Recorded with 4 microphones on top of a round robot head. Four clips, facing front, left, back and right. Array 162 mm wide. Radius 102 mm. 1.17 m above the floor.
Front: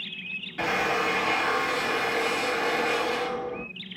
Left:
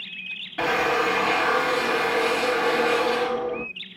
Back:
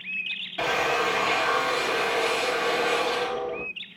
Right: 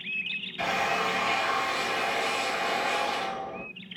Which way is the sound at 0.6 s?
105° left.